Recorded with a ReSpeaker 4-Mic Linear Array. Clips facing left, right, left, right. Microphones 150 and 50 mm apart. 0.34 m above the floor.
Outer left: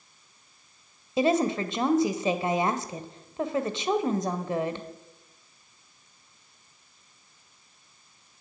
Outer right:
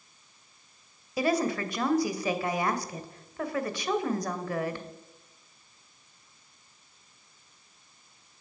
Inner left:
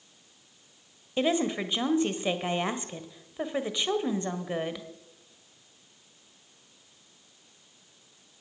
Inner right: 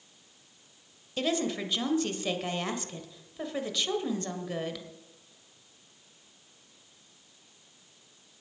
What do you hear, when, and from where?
1.2 s a woman speaking: 25° left (ahead or behind), 1.3 m